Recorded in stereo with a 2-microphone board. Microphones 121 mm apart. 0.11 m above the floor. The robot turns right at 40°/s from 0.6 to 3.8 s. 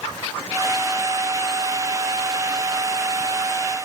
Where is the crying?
I don't hear crying.